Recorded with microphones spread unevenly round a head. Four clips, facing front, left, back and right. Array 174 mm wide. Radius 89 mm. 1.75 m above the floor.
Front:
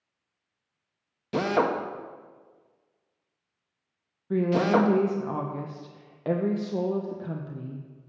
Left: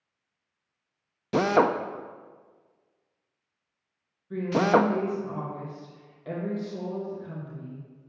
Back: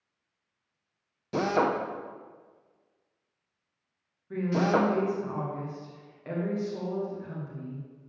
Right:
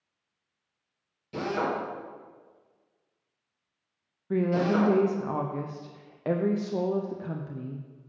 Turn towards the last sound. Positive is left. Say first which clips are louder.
# left 3 dB, front 3 dB
turn(degrees=-50)